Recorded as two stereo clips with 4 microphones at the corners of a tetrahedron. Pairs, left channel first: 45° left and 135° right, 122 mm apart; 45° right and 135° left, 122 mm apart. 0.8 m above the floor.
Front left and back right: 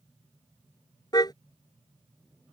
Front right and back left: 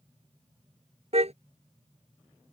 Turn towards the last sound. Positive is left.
turn(degrees=100)